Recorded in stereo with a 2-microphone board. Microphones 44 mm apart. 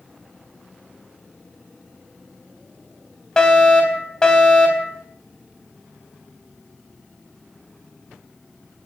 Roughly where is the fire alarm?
Centre.